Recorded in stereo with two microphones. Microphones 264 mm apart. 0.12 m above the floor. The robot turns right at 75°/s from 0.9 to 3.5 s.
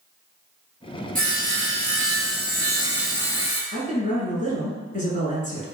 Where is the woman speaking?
30° left (ahead or behind), 1.5 m.